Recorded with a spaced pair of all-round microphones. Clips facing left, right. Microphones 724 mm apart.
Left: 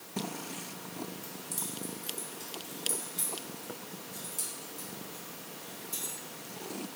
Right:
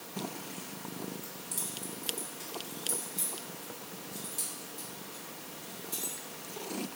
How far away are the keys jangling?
About 1.9 m.